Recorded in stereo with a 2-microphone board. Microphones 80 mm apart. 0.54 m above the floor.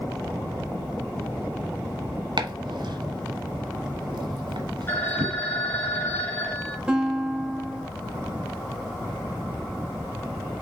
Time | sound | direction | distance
2.4 | chopping | 75° right (ahead or behind) | 1.3 m
4.9 | a phone ringing | 25° left (ahead or behind) | 2.5 m
6.9 | a guitar | 10° right (ahead or behind) | 2.5 m